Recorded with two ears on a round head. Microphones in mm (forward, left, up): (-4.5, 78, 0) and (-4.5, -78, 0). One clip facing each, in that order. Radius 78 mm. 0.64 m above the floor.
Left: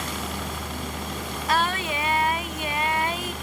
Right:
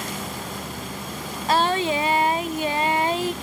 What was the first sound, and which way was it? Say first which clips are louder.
A helicopter: even; 65° left (ahead or behind).